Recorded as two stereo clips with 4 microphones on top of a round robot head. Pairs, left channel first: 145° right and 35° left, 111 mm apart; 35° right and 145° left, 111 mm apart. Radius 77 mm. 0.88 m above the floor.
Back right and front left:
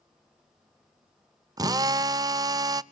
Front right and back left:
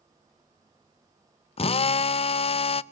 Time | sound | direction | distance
1.6 | a drill | 15° right | 0.5 m